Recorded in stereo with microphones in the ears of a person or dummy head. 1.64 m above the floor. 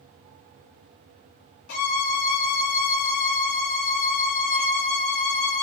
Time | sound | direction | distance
1.7 | a violin | 75° left (ahead or behind) | 1.3 m